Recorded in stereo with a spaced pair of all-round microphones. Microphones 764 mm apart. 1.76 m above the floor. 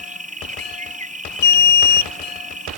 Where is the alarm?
60° left (ahead or behind).